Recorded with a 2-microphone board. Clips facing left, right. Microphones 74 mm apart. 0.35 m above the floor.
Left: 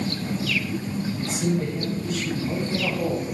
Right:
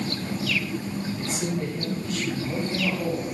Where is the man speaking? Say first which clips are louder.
Left 5 dB; 5° left (ahead or behind), 4 m; by 3.2 s 25° left (ahead or behind), 2.5 m.